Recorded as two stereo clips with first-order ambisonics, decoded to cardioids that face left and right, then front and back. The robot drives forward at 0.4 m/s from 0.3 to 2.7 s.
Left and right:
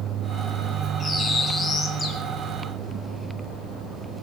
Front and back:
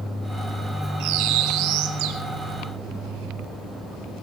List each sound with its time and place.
1.0 s a bird: 175° left, 1.7 m